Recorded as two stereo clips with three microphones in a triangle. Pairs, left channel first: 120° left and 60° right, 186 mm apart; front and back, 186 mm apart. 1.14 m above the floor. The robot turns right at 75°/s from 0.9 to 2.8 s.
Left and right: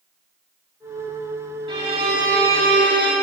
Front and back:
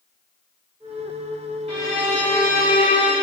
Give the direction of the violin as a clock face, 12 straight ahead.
4 o'clock.